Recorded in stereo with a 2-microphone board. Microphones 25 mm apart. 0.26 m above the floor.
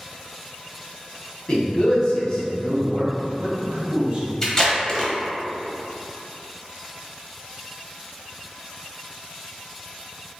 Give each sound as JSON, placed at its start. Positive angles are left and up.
{"t": 1.5, "sound": "a man speaking", "side_deg": 50, "distance_m": 1.6}
{"t": 4.4, "sound": "tape being pulled", "side_deg": 20, "distance_m": 1.0}